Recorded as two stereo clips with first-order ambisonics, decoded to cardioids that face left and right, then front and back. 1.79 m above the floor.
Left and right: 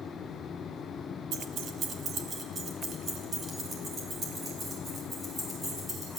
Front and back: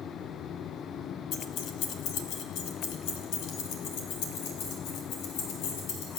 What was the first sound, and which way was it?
Keys jangling, 45° right.